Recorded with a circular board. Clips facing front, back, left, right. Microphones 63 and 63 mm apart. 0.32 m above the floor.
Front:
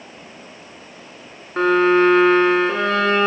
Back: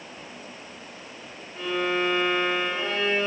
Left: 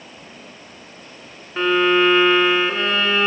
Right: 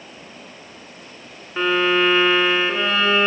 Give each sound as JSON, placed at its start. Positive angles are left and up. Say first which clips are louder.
{"t": 1.6, "sound": "a violin", "louder": "front 12 dB, left 2 dB", "azimuth_deg": -5, "distance_m": 3.5}